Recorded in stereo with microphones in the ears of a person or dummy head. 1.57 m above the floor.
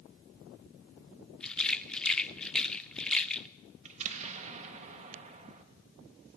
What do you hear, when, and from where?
1.4 s a rattle: 5° left (ahead or behind), 0.7 m
3.9 s an explosion: 40° right (ahead or behind), 2 m